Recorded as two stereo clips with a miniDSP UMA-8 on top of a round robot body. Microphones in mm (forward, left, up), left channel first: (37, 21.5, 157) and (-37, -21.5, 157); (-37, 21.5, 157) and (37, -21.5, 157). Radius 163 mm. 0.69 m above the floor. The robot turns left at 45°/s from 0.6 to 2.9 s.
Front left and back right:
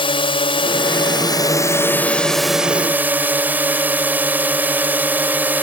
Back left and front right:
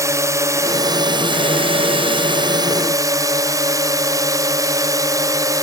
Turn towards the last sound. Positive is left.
turn(degrees=-80)